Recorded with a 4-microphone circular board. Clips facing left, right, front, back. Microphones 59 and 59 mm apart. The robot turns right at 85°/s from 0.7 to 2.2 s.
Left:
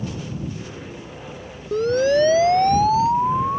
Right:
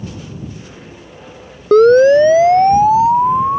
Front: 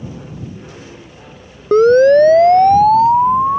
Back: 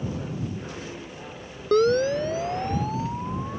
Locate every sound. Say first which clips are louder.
1.7 s a siren: right 11 dB, front 13 dB; 65° right; by 3.6 s 25° right